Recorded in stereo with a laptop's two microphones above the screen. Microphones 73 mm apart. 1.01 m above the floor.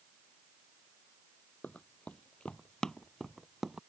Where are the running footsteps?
20° left (ahead or behind); by 3.8 s 5° right (ahead or behind).